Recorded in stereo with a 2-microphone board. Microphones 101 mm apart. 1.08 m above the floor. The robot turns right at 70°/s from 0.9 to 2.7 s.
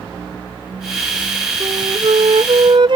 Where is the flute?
135° right; by 3.0 s 60° right.